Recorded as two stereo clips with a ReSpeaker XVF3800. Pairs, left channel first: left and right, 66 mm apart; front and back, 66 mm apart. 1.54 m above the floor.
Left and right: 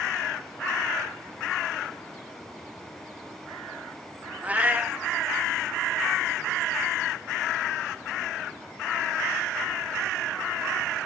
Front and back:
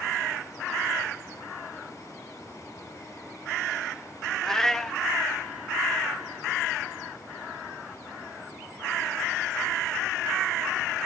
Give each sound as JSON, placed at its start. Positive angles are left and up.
{"t": 4.4, "sound": "a cat meowing", "azimuth_deg": -70, "distance_m": 0.8}